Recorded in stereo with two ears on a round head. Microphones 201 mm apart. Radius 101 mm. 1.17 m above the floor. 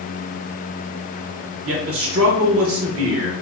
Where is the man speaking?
65° right (ahead or behind), 1.0 m.